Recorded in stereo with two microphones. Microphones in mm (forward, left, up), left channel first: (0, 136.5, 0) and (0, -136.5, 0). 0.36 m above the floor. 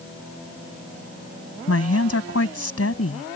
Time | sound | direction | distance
1.7 | a woman speaking | 60° left (ahead or behind) | ?